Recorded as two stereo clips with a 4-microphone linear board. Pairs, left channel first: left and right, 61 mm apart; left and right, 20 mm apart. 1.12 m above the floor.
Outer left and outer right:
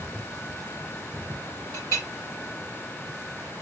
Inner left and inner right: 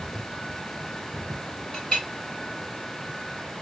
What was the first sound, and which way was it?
A clink, 70° left (ahead or behind).